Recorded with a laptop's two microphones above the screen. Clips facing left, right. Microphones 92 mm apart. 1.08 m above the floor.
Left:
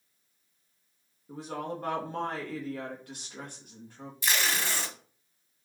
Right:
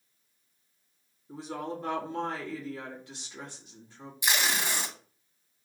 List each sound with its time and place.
1.3 s a woman speaking: 50° left (ahead or behind), 1.0 m
4.2 s tape being pulled: 15° right (ahead or behind), 0.8 m